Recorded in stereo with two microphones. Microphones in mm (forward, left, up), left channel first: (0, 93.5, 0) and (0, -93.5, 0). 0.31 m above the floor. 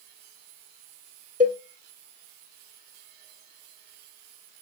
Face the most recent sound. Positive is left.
turn(degrees=-45)  # may be behind; listen again after turning